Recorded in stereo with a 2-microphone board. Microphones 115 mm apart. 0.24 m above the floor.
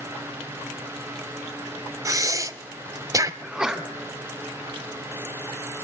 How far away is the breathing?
About 0.6 m.